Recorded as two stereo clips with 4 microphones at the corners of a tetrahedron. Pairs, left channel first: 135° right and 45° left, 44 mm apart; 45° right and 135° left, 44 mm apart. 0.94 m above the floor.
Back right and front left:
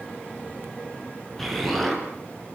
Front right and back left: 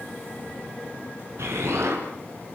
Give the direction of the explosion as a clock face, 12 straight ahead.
7 o'clock.